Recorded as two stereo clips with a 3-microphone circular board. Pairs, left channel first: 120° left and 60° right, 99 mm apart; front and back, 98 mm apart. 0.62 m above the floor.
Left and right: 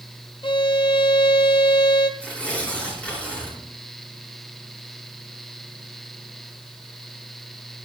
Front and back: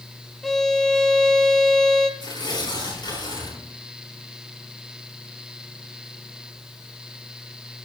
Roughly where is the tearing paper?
Ahead left.